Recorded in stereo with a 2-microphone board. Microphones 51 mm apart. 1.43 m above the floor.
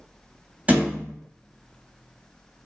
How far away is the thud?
About 1.5 m.